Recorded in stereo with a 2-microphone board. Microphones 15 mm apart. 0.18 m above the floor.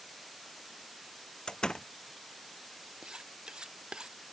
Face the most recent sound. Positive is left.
turn(degrees=-80)